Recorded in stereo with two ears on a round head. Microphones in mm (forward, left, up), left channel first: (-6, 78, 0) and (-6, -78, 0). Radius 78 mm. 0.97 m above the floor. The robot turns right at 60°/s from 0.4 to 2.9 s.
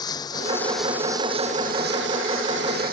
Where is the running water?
155° left; by 2.9 s 55° right.